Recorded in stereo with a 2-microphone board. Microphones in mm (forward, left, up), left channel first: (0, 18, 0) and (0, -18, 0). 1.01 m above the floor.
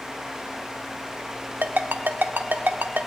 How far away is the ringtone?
About 1.1 m.